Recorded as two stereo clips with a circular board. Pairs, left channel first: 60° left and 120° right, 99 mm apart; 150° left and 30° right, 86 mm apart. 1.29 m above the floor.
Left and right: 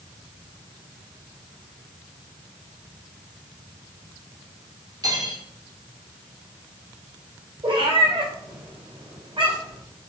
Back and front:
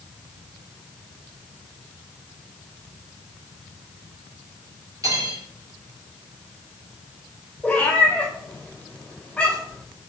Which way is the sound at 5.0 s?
75° right.